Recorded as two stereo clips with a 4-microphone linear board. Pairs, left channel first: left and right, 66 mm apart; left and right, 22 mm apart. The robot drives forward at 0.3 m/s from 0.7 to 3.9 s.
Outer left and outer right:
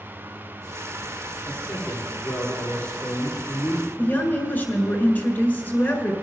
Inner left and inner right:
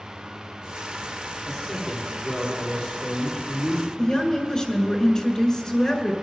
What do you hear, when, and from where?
1.4 s a man speaking: 30° left (ahead or behind), 3 m; by 3.9 s 25° left (ahead or behind), 3.5 m
4.0 s a woman speaking: 30° left (ahead or behind), 1.7 m